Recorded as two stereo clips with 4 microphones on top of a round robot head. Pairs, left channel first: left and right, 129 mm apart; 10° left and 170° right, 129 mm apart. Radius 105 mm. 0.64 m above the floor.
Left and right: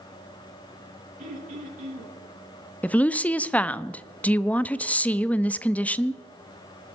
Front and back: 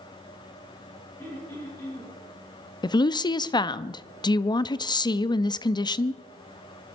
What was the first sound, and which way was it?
Throat clearing, 65° right.